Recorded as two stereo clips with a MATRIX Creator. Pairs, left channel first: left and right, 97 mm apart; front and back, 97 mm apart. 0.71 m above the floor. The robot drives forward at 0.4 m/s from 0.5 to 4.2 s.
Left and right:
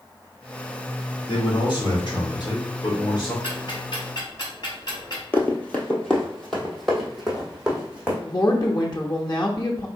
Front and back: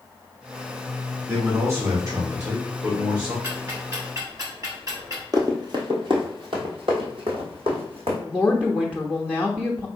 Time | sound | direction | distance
1.3 | a man speaking | 120° left | 2 m
3.4 | ticking | 125° left | 2 m
5.3 | running footsteps | 150° left | 0.9 m
8.3 | a woman speaking | 105° left | 0.8 m